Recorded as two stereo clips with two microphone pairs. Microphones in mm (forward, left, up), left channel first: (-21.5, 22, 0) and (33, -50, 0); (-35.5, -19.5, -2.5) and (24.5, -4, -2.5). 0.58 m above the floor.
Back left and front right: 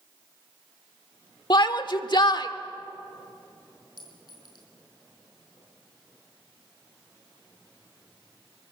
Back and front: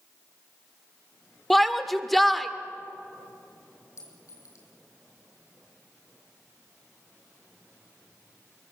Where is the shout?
105° left, 1.4 m.